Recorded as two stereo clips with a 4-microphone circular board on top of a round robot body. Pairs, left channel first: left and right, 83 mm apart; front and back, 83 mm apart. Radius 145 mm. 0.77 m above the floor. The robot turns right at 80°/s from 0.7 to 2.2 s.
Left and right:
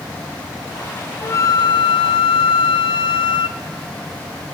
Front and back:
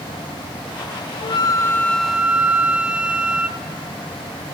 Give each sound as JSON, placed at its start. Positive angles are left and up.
{"t": 1.2, "sound": "a flute", "azimuth_deg": 20, "distance_m": 0.5}